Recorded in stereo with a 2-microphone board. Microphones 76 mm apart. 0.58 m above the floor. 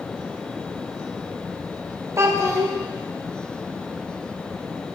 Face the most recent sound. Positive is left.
turn(degrees=-40)  # may be behind; listen again after turning